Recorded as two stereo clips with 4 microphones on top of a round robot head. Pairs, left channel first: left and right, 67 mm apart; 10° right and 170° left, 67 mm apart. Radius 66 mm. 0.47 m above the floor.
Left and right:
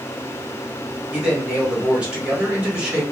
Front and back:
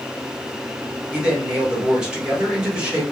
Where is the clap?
No clap in this recording.